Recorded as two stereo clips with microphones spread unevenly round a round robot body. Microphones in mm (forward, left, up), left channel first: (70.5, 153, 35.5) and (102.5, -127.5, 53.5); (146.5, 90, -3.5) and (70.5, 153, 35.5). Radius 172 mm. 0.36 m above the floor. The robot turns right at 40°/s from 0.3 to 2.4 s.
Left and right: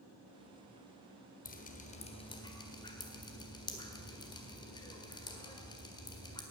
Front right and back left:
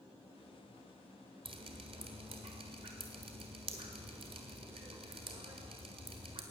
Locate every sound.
1.4 s dripping: 120° left, 1.6 m; by 6.4 s 155° left, 1.6 m